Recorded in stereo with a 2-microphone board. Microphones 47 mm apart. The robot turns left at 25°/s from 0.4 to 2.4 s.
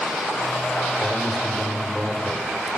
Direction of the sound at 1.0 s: 20° left.